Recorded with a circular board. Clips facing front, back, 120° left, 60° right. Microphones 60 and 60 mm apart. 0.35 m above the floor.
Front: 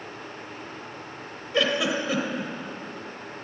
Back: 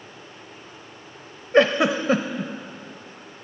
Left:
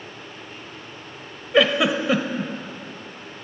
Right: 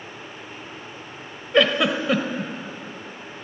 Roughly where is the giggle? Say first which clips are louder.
Back 7 dB, left 1 dB; behind right.